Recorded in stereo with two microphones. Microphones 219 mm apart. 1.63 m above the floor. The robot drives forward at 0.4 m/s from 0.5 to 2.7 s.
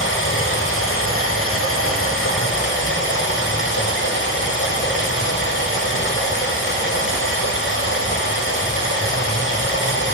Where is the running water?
65° left (ahead or behind), 1.1 m; by 10.2 s 60° left (ahead or behind), 1.1 m.